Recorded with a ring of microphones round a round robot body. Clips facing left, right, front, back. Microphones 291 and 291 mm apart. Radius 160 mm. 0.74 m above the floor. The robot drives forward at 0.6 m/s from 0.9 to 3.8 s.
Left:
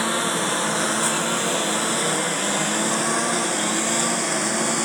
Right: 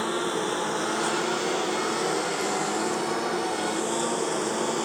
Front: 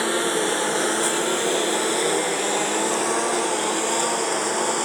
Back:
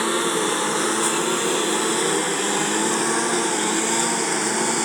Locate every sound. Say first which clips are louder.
0.0 s a lawn mower: left 1 dB, even; 105° left; by 4.9 s 125° left